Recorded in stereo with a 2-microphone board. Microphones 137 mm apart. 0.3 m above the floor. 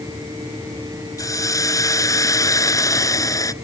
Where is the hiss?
25° left (ahead or behind).